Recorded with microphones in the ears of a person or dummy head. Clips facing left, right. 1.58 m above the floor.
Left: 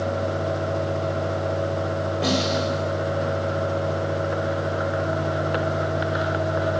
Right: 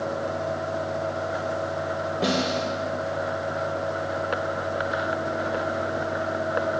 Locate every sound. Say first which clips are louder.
2.2 s a snare drum: left 1 dB; 10° right (ahead or behind), 1.4 m